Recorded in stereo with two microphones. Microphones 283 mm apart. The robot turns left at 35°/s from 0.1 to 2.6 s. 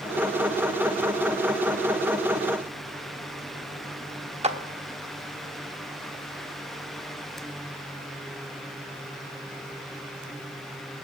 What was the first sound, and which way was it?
A clap, 20° right (ahead or behind).